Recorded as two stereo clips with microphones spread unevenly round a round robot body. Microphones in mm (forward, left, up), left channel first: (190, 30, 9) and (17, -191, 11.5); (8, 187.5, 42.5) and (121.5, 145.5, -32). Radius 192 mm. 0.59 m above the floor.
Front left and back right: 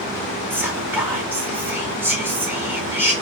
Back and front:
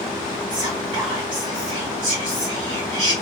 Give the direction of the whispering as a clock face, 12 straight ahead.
2 o'clock.